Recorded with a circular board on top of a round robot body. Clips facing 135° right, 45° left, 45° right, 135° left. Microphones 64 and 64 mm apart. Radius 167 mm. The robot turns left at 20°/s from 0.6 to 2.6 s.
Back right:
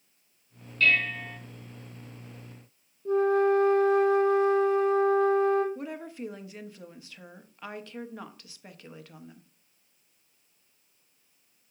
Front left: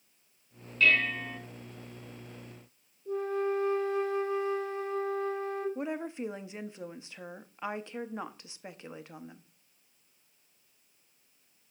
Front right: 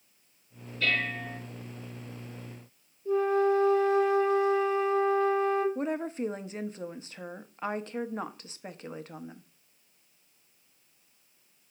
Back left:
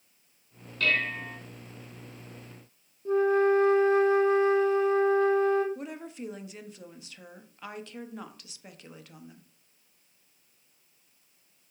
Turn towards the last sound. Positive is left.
turn(degrees=-15)